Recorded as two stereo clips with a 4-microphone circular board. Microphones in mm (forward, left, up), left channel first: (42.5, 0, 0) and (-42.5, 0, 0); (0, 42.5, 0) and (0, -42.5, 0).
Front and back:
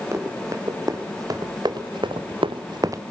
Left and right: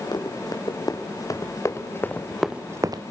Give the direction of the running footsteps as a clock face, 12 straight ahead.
8 o'clock.